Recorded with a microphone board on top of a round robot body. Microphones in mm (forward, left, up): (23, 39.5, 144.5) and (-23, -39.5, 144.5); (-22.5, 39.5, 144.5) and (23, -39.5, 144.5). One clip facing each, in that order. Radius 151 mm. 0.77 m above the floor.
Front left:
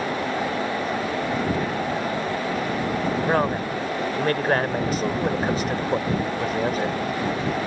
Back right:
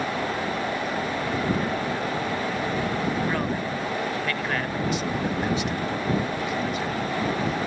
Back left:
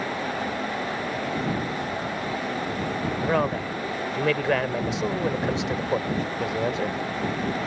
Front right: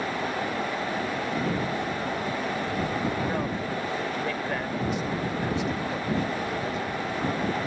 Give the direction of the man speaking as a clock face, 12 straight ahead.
8 o'clock.